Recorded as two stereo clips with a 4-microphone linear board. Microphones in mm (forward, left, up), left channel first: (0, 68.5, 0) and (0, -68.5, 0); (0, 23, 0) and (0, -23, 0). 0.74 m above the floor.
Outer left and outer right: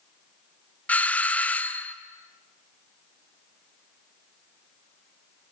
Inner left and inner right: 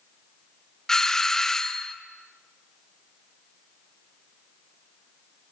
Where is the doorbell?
10° left (ahead or behind), 0.9 m.